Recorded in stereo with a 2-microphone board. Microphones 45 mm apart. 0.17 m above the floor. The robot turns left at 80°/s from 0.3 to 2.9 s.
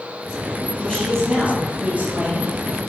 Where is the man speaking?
40° left, 2 m; by 2.5 s 100° right, 2 m.